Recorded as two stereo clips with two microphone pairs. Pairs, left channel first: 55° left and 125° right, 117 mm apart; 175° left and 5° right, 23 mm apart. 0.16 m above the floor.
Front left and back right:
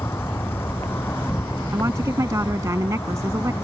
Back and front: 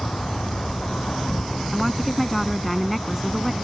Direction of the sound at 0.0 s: 125° left.